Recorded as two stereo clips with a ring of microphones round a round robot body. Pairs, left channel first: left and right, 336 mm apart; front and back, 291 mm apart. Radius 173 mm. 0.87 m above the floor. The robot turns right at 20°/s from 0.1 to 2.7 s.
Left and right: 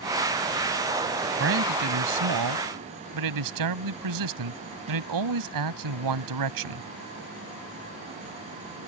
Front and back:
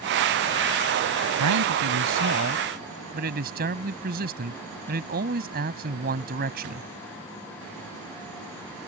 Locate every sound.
1.4 s a man speaking: 145° right; by 6.9 s 115° right